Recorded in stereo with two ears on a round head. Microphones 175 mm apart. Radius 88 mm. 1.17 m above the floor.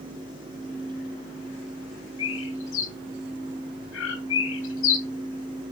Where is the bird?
75° left (ahead or behind), 3 m.